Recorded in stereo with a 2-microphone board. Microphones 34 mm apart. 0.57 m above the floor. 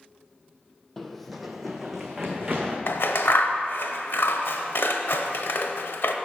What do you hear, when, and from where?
1.0 s running footsteps: 5° left (ahead or behind), 0.7 m; by 2.8 s 15° right (ahead or behind), 2 m
2.9 s scissors: 80° left, 0.8 m